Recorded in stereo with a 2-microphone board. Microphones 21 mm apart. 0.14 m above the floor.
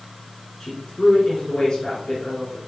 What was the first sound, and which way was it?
A woman speaking, 35° left (ahead or behind).